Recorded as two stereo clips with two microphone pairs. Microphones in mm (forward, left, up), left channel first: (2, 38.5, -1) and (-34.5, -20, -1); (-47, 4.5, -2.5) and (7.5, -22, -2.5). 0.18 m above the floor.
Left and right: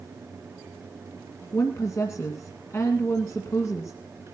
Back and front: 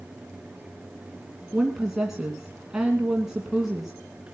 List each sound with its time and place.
1.5 s a woman speaking: 55° left, 2 m